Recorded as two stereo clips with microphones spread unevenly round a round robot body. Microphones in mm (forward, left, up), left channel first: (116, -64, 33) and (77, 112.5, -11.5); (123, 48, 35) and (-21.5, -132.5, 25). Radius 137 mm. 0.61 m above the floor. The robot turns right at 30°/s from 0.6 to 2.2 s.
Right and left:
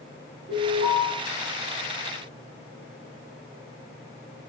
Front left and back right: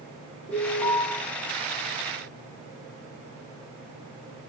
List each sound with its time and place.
0.5 s an alarm: 125° left, 1.4 m; by 1.0 s 140° left, 1.4 m